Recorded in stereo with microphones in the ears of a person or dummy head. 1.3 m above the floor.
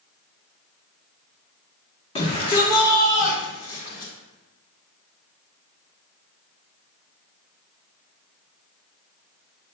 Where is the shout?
30° left (ahead or behind), 1.2 m; by 4.1 s 60° left (ahead or behind), 2.5 m.